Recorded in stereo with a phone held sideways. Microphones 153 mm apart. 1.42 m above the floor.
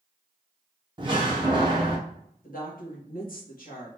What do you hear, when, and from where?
1.0 s a door slam: 30° right (ahead or behind), 1.1 m
2.4 s a woman speaking: 70° left (ahead or behind), 1.7 m